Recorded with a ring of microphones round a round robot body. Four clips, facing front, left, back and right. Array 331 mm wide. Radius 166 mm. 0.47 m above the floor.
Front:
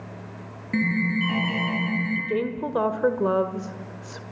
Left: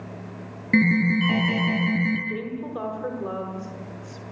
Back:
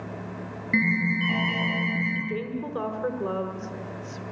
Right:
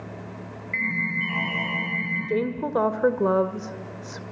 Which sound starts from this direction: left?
An alarm, at 0.7 s.